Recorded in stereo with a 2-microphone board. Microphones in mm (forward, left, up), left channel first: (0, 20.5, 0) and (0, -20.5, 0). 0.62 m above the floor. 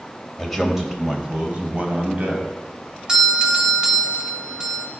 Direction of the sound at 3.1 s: 20° right (ahead or behind).